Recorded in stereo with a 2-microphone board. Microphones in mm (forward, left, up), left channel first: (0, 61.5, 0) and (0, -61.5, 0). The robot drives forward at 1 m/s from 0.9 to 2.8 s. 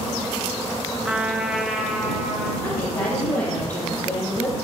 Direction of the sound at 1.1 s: 10° right (ahead or behind).